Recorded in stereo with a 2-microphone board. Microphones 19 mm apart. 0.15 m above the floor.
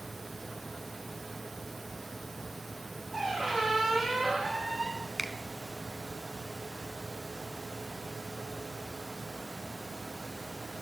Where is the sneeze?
I don't hear a sneeze.